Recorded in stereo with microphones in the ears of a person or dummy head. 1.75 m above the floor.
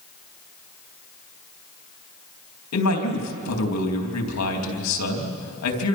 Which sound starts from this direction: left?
A man speaking, at 2.7 s.